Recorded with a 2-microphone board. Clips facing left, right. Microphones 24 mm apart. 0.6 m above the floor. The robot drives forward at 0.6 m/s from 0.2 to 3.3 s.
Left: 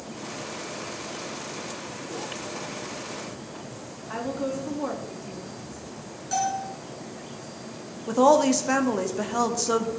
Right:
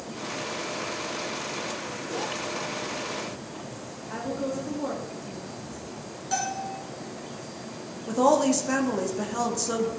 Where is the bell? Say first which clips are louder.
Left 3 dB; 5° right (ahead or behind), 3.5 m.